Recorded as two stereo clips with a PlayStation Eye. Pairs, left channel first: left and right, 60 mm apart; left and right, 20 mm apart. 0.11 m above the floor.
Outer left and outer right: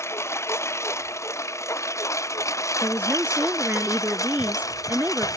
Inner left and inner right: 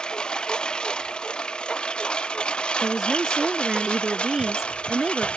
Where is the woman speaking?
30° right (ahead or behind).